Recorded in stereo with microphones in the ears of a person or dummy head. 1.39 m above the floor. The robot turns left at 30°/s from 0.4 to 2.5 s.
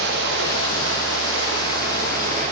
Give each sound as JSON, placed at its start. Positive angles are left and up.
{"t": 0.0, "sound": "running water", "azimuth_deg": -80, "distance_m": 1.2}